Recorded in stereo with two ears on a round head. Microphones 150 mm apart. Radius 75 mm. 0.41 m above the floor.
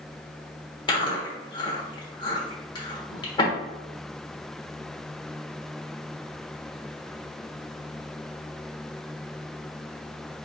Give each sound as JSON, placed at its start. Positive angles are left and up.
{"t": 0.9, "sound": "chewing", "side_deg": 30, "distance_m": 1.1}